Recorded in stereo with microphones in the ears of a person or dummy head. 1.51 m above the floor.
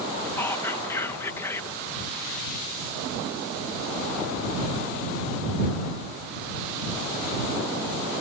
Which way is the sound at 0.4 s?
15° left (ahead or behind).